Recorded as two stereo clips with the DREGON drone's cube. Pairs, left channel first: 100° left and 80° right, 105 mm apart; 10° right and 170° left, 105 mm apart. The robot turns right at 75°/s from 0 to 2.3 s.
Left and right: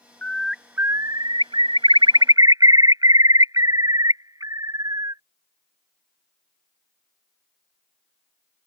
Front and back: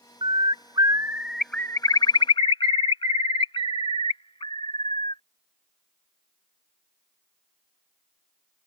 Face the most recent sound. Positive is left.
turn(degrees=-30)